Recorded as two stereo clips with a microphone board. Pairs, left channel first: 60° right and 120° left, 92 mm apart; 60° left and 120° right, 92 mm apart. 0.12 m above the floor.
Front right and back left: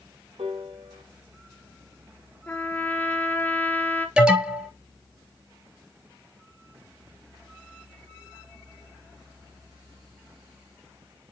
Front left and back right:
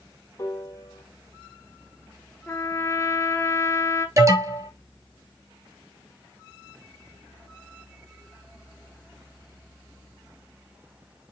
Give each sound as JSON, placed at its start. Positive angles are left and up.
{"t": 0.4, "sound": "a piano", "azimuth_deg": 115, "distance_m": 1.4}
{"t": 2.5, "sound": "a trumpet", "azimuth_deg": 5, "distance_m": 1.1}
{"t": 4.2, "sound": "an alarm", "azimuth_deg": -165, "distance_m": 3.0}